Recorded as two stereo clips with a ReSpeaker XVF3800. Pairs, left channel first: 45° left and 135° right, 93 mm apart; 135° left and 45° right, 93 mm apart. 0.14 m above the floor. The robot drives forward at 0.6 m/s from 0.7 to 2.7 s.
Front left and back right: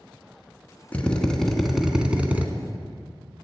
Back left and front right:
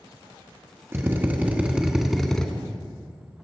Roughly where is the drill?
Ahead.